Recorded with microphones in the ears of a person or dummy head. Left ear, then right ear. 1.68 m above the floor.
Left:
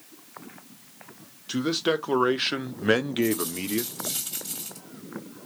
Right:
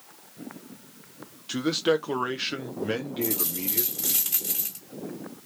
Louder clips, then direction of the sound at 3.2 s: Left 4 dB; 45° right (ahead or behind).